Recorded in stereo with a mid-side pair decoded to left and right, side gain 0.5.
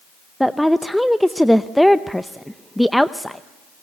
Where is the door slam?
I don't hear a door slam.